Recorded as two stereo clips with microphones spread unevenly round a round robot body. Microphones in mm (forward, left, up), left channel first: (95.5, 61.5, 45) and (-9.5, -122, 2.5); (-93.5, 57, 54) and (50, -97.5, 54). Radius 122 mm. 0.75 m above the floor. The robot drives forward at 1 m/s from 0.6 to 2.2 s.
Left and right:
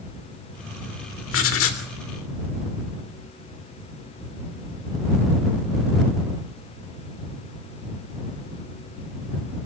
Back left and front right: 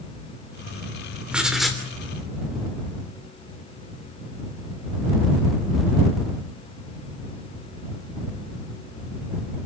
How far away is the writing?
About 3.5 m.